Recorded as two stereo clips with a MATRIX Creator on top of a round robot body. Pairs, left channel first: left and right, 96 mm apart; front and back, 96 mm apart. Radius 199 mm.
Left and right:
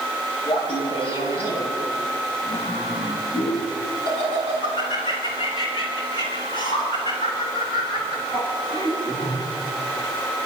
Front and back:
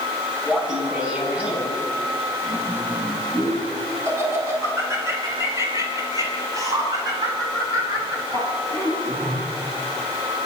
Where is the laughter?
95° left, 9 m; by 9.4 s 135° left, 15 m.